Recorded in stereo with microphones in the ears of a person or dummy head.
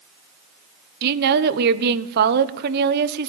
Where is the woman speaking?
55° right (ahead or behind), 1.2 m.